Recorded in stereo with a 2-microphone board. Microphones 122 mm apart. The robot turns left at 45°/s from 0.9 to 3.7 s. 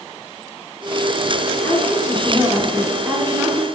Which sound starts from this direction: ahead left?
A woman speaking, at 1.6 s.